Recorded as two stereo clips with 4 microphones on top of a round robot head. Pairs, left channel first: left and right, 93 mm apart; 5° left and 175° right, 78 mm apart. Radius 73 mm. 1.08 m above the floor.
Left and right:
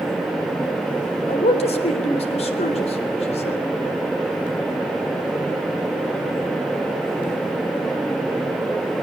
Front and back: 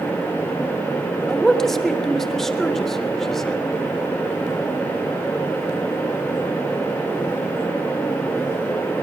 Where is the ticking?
No ticking in this recording.